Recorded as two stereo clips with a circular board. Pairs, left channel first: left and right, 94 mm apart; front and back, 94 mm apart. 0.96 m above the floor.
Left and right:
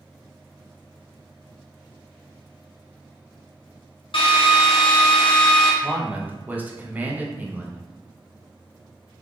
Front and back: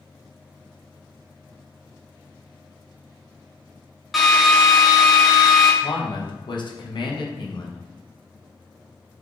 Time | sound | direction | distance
4.1 | a drill | 90° left | 0.6 m
5.8 | a man speaking | 20° right | 0.5 m